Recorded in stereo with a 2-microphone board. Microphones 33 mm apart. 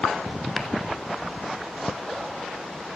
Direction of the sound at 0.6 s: 5° right (ahead or behind).